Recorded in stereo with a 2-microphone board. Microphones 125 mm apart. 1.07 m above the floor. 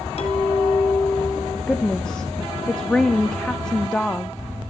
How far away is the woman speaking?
About 0.7 m.